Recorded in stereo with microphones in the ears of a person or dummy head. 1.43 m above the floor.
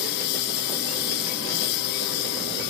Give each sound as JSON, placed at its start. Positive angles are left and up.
{"t": 0.0, "sound": "a lawn mower", "side_deg": 60}